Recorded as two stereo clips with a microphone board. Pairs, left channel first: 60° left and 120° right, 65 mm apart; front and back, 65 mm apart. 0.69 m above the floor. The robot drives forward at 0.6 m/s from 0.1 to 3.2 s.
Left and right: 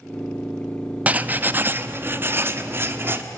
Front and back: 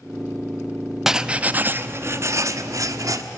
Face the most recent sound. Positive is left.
turn(degrees=-170)